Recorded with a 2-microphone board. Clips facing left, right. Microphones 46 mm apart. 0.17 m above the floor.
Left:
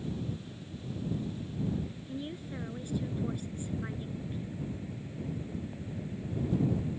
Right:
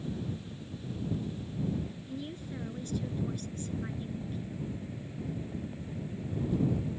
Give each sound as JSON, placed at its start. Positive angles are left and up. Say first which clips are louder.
{"t": 2.1, "sound": "a woman speaking", "louder": "left 1 dB", "side_deg": 15}